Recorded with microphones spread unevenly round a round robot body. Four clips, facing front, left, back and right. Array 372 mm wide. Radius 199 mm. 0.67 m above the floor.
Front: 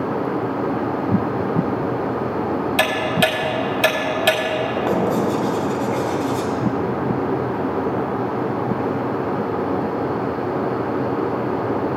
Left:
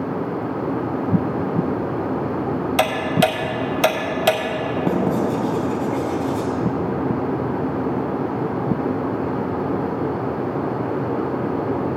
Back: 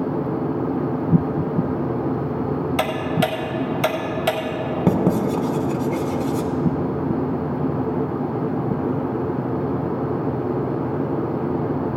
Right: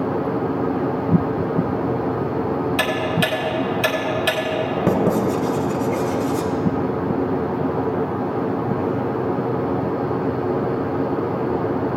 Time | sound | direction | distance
2.8 | ticking | 80° left | 1.0 m
4.9 | writing | 160° right | 0.8 m